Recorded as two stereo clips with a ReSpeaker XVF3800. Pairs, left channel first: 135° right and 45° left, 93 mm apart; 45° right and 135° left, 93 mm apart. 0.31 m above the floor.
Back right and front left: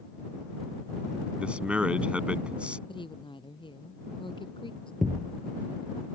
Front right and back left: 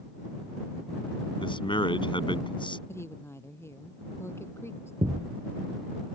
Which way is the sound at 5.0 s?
135° left.